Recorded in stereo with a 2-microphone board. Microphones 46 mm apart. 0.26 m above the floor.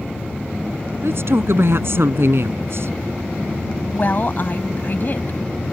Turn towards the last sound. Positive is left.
turn(degrees=45)  # may be behind; listen again after turning